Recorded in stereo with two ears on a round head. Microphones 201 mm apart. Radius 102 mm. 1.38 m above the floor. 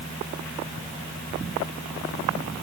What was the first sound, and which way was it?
Only background noise.